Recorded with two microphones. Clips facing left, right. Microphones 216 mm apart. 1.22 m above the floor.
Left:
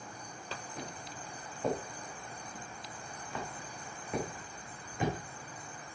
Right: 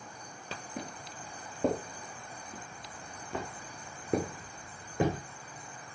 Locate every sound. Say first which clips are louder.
0.8 s footsteps: right 2 dB; 70° right (ahead or behind), 5 m